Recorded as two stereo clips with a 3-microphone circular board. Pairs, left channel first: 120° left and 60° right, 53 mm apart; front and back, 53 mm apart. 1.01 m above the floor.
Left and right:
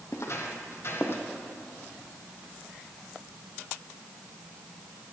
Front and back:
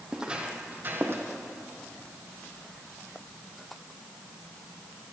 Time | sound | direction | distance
0.1 | footsteps | 105° left | 1.9 m